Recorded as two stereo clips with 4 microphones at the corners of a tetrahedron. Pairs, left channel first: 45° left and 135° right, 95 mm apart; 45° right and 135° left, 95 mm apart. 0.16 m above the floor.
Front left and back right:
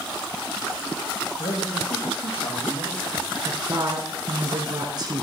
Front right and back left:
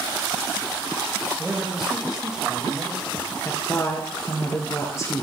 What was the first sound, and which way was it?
A man speaking, 50° left.